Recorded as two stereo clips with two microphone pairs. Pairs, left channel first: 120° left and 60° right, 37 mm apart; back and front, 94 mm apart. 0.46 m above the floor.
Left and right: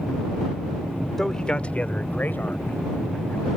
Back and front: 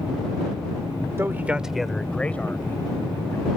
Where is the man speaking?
45° left; by 3.5 s 120° left.